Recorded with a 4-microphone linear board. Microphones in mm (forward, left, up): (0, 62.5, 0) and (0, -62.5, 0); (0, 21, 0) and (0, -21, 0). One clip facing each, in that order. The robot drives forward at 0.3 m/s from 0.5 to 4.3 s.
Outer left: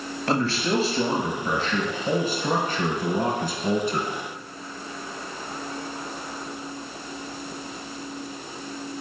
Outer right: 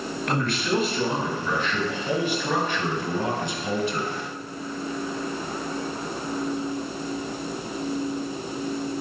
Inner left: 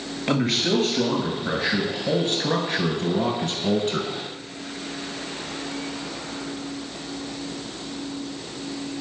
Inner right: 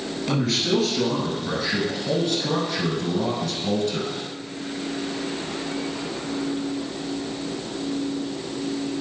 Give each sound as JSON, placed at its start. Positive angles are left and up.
{"t": 0.3, "sound": "a man speaking", "side_deg": 30, "distance_m": 1.6}